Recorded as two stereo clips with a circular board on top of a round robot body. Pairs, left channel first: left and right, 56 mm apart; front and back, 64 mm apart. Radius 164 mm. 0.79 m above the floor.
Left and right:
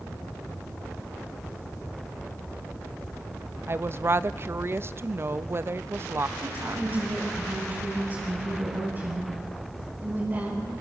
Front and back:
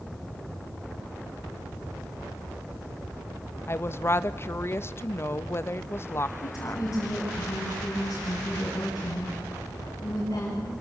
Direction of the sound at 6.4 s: 45° right.